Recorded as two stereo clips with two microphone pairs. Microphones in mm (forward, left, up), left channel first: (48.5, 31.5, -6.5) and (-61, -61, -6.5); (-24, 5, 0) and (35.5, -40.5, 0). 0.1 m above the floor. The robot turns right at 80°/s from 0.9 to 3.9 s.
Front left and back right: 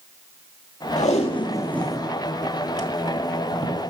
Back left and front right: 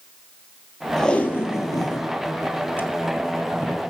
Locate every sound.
1.0 s tape being pulled: 55° left, 0.6 m; by 3.8 s 75° right, 0.6 m